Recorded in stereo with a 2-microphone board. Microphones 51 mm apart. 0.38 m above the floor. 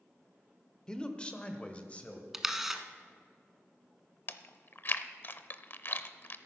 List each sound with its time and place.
0.9 s a man speaking: 15° left (ahead or behind), 0.9 m; by 2.2 s 25° left (ahead or behind), 1.7 m
2.3 s a camera shutter: 5° right (ahead or behind), 0.9 m
4.3 s chewing: 45° left (ahead or behind), 0.6 m